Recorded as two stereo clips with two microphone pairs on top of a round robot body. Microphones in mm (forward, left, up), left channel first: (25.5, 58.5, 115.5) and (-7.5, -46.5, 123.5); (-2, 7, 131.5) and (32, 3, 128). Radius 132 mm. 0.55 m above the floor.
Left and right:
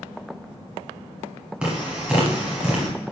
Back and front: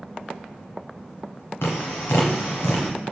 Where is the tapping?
170° left, 1.0 m.